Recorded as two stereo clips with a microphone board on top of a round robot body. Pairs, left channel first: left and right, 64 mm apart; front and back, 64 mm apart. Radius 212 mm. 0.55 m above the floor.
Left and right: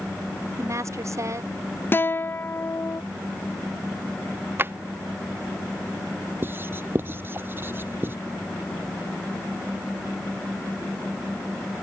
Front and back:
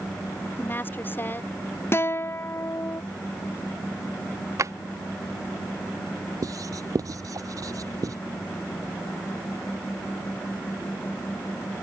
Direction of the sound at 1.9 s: 40° left.